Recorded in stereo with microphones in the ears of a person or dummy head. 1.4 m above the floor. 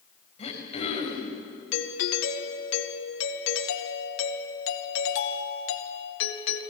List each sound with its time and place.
0.4 s throat clearing: 35° left (ahead or behind), 4.5 m
1.7 s a doorbell: 70° left (ahead or behind), 2 m